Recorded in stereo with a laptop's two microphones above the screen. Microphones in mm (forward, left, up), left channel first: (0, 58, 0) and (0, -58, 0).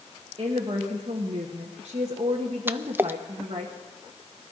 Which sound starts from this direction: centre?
A splash, at 2.7 s.